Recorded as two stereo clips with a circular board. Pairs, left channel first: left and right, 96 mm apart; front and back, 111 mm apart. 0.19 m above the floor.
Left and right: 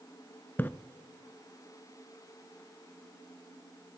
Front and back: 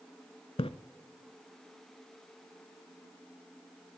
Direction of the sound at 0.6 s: 20° left.